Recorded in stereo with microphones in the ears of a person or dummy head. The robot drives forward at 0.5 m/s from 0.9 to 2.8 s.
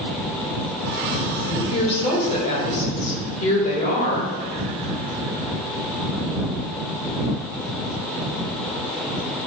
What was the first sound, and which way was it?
A woman speaking, 35° left (ahead or behind).